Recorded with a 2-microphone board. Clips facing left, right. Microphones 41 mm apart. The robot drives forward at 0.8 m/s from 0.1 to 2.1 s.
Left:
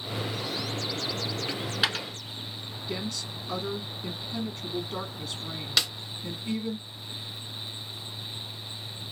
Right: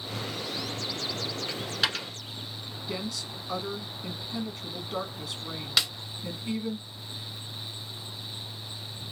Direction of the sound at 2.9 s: Centre (ahead or behind).